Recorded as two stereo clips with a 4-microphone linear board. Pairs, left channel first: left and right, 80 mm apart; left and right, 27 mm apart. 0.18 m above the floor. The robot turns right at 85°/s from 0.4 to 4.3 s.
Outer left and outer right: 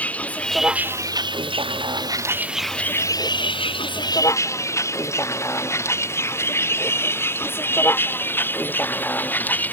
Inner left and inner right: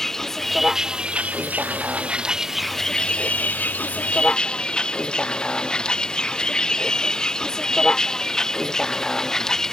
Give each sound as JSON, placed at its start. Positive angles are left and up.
{"t": 0.0, "sound": "a vehicle", "side_deg": 15}